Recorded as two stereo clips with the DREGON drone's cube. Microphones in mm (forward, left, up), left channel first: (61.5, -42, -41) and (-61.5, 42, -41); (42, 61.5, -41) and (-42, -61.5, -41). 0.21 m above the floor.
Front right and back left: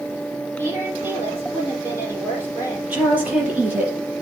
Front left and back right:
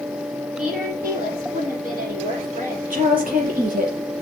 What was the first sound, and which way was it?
A woman speaking, 140° right.